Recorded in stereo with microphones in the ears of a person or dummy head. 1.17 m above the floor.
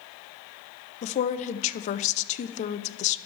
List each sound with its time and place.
1.0 s a woman speaking: 40° left (ahead or behind), 0.5 m